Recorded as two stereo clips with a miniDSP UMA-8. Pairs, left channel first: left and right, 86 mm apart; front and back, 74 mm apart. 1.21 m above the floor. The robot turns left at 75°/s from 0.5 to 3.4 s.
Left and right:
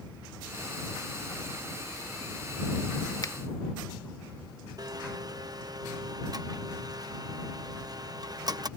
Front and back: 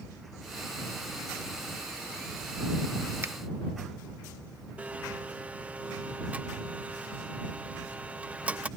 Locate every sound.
3.2 s a finger snap: 130° left; by 3.3 s 120° left
4.8 s a blender: 115° right